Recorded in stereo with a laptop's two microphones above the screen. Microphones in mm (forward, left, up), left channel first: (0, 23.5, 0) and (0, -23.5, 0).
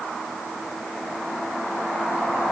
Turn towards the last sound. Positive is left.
No sound to turn to.